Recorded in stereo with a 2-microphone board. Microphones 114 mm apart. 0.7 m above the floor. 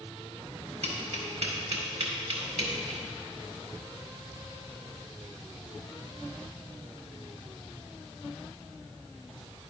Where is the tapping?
75° right (ahead or behind), 2 m.